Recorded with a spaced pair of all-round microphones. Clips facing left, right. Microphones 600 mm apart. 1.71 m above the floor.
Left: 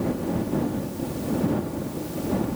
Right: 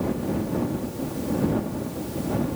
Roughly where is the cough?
No cough in this recording.